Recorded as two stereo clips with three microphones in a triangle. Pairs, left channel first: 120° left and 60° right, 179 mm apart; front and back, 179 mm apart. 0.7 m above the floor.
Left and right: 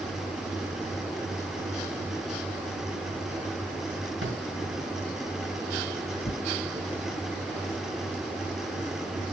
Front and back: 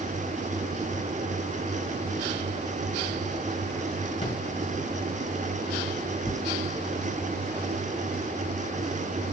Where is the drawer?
65° right, 4 m.